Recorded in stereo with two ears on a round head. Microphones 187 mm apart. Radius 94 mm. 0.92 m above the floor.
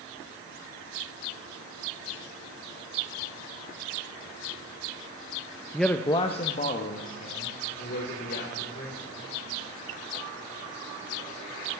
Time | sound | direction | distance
5.7 | a man speaking | 5° right (ahead or behind) | 0.6 m